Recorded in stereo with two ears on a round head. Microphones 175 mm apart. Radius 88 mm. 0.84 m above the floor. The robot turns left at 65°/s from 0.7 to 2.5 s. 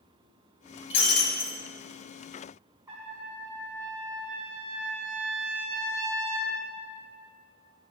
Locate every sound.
0.9 s breaking glass: 85° left, 1.9 m; by 1.6 s 40° left, 1.9 m
2.9 s a trumpet: 15° right (ahead or behind), 3 m